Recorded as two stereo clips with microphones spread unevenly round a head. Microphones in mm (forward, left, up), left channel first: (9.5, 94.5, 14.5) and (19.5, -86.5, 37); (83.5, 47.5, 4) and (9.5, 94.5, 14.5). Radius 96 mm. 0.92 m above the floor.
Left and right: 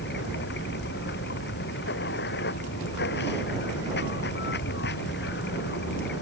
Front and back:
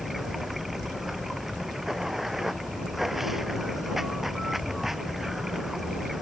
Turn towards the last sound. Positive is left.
turn(degrees=60)